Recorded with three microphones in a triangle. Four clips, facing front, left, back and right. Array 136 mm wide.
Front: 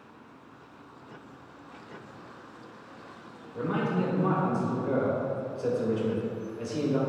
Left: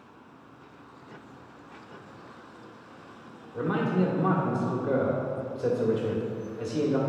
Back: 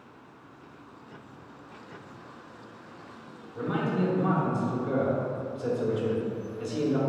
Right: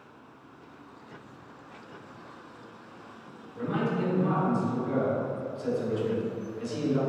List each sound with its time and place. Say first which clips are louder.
3.5 s a man speaking: left 3 dB, even; 75° left, 1.9 m